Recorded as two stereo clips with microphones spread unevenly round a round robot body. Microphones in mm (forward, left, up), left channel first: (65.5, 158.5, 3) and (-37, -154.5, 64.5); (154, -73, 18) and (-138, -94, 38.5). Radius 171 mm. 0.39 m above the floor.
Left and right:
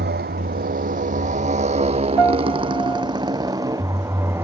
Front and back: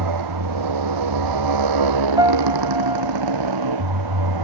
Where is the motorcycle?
170° right; by 4.4 s 170° left.